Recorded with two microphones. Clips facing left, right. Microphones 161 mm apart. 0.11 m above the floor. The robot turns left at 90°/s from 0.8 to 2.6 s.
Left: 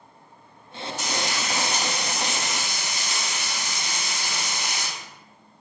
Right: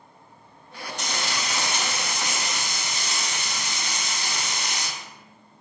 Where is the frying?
175° left, 1.6 m; by 4.9 s 30° left, 1.6 m.